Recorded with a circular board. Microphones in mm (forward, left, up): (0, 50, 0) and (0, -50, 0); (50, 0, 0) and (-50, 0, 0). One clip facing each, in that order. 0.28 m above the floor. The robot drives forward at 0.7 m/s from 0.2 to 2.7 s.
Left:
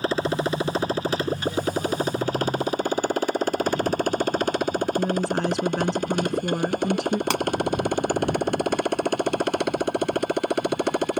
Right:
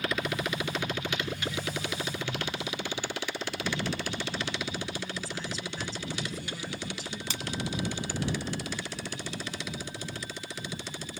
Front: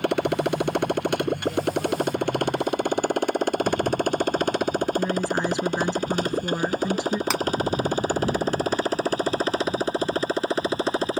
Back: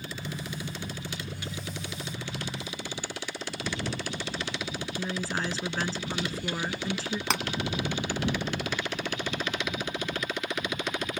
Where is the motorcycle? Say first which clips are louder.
Left 8 dB, front 16 dB; 30° left; by 11.2 s 60° left.